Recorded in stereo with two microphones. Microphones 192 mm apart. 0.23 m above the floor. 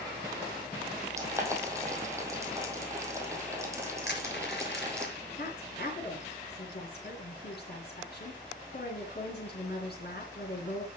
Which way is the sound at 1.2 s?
15° right (ahead or behind).